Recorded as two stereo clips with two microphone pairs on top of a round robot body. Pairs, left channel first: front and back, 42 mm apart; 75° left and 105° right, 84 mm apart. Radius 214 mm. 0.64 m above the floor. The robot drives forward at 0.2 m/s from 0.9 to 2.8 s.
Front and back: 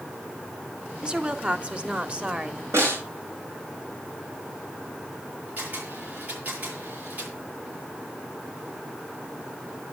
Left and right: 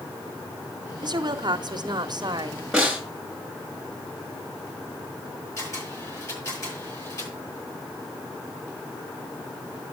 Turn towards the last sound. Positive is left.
turn(degrees=130)